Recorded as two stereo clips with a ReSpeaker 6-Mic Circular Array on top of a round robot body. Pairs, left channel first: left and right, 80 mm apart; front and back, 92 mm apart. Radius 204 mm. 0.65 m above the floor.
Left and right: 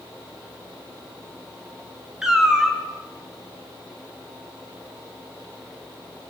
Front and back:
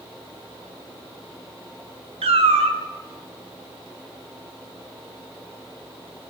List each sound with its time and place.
2.2 s a cat meowing: 175° right, 1.2 m